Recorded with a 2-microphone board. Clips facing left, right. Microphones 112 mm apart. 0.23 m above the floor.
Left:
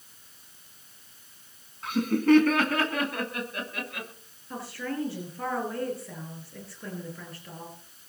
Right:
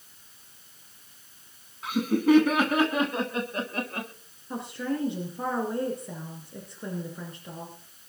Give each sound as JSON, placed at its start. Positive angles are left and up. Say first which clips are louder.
{"t": 1.8, "sound": "laughter", "louder": "even", "side_deg": -5, "distance_m": 2.0}
{"t": 4.5, "sound": "a woman speaking", "louder": "right 3 dB", "side_deg": -20, "distance_m": 4.0}